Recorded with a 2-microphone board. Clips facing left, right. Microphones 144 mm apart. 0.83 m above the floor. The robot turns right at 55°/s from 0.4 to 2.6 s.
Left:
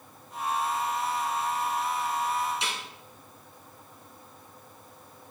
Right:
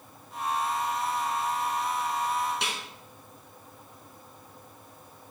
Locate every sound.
2.6 s a snare drum: 60° right (ahead or behind), 3 m